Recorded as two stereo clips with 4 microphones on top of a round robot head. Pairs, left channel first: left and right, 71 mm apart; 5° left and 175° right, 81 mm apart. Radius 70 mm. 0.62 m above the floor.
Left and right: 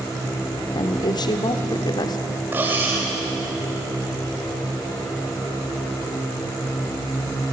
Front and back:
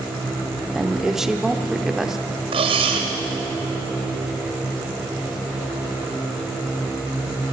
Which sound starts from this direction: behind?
Cutlery clinking, at 2.5 s.